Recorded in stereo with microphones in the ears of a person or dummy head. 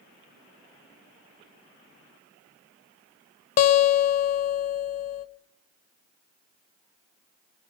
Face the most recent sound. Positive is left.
turn(degrees=45)  # may be behind; listen again after turning